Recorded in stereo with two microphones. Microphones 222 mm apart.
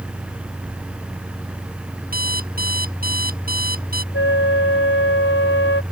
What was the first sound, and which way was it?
An alarm clock, 40° right (ahead or behind).